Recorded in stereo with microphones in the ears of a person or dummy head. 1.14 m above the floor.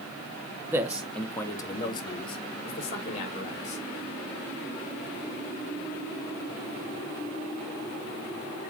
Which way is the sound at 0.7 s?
15° right (ahead or behind).